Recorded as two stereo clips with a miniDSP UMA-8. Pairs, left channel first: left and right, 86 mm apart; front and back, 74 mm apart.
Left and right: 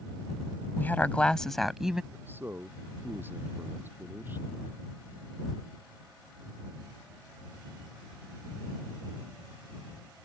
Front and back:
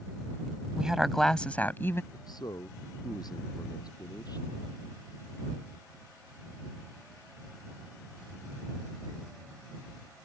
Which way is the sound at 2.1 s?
25° right.